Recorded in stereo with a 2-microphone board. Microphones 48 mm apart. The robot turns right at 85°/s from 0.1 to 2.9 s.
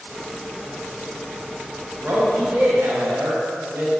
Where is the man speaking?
140° right, 1.6 m; by 3.9 s 65° right, 1.6 m.